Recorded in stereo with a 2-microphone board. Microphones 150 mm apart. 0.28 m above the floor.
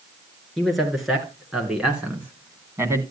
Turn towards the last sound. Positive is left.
turn(degrees=-20)  # may be behind; listen again after turning